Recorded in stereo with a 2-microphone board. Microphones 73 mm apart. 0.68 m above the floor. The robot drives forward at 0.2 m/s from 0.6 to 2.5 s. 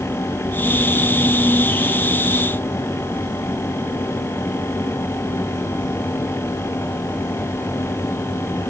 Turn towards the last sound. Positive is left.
No sound to turn to.